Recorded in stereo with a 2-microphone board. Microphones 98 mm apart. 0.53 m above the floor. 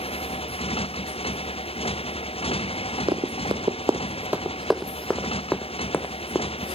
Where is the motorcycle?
85° left; by 6.8 s 80° left.